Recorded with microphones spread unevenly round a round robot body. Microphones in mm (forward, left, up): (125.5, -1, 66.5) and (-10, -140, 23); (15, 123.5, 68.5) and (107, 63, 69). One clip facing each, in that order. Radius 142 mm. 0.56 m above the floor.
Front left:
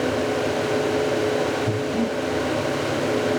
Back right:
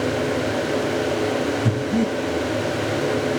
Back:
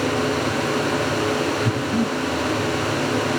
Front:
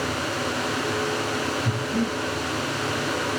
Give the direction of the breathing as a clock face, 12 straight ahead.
5 o'clock.